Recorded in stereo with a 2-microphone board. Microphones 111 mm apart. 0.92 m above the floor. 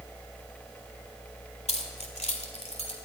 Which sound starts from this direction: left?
Keys jangling, at 1.7 s.